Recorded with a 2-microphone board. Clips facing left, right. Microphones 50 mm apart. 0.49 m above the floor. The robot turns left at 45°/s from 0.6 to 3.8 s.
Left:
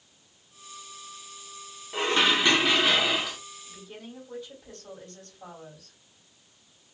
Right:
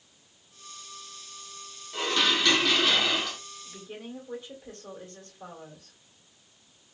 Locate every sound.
1.9 s dishes clattering: 70° left, 0.7 m; by 3.4 s 5° left, 0.7 m
3.6 s a woman speaking: 45° right (ahead or behind), 2.0 m; by 6.0 s 50° right (ahead or behind), 2.0 m